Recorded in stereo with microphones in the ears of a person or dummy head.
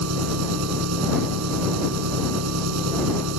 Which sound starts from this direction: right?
An engine running, at 0.0 s.